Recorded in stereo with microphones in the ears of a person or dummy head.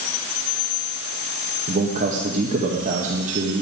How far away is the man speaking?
About 1.8 m.